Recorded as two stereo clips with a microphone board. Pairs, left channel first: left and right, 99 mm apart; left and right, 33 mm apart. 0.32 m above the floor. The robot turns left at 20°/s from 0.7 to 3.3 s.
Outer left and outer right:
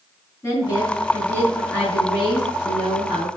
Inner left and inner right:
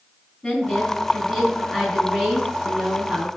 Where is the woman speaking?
30° left, 3.5 m; by 3.3 s 20° right, 3.5 m.